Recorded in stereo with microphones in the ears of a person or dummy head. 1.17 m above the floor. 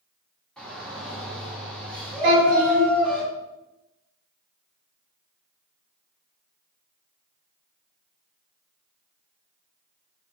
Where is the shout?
5° left (ahead or behind), 1.8 m.